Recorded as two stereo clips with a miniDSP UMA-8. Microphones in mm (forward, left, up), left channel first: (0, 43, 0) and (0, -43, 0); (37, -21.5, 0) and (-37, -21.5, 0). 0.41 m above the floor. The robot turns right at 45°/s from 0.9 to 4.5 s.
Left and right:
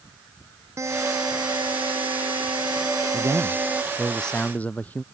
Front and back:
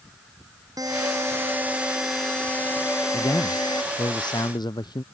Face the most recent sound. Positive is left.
turn(degrees=15)